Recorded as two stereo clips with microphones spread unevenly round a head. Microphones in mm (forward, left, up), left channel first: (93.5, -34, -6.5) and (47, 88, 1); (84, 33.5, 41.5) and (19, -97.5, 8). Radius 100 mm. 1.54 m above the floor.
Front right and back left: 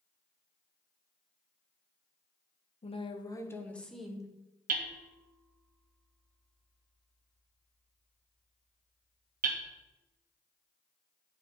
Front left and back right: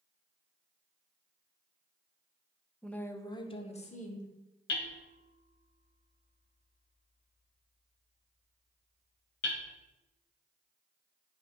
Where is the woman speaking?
25° right, 1.1 m; by 4.3 s 25° left, 1.6 m.